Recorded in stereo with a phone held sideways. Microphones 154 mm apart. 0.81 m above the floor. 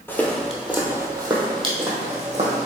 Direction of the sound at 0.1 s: 15° left (ahead or behind).